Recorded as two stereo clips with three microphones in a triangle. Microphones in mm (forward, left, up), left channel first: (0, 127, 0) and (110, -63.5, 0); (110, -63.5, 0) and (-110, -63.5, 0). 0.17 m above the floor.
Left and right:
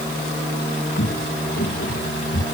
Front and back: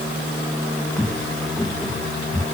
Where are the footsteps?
85° left; by 2.4 s 90° left.